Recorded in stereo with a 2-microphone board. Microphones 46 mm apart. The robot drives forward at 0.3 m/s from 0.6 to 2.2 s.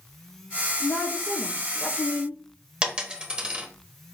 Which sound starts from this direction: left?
A woman speaking, at 0.8 s.